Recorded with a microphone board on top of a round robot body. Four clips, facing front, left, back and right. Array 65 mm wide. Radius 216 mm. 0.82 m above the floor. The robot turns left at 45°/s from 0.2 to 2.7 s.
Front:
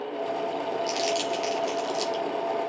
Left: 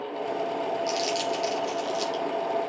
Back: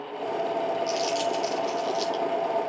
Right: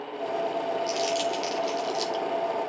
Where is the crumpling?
25° left, 1.6 m; by 2.2 s 35° right, 1.6 m.